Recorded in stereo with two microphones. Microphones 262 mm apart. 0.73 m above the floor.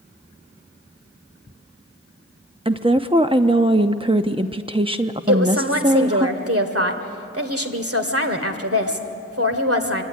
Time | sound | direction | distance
2.6 | a woman speaking | 20° right (ahead or behind) | 0.7 m
5.3 | a woman speaking | 60° right (ahead or behind) | 2 m